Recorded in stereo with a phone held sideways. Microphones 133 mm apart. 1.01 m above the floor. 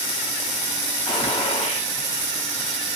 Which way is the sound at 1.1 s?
50° left (ahead or behind).